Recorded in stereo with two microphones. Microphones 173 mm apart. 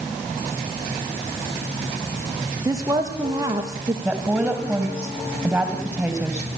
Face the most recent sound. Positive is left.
turn(degrees=-5)  # may be behind; listen again after turning